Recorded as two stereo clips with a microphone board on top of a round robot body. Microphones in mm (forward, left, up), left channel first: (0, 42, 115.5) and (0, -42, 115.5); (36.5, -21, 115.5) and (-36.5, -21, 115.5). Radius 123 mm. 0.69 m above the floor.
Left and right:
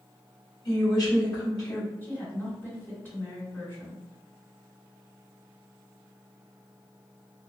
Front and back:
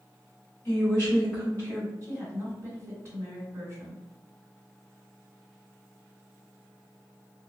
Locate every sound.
0.7 s a woman speaking: 55° left, 1.7 m
2.0 s a woman speaking: 145° left, 1.5 m